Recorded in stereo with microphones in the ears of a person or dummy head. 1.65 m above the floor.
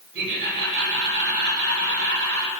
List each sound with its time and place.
0.1 s laughter: 55° right (ahead or behind), 7.5 m